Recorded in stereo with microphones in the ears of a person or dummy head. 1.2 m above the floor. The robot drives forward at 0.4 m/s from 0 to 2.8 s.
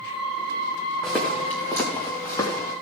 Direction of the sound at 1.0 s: Centre (ahead or behind).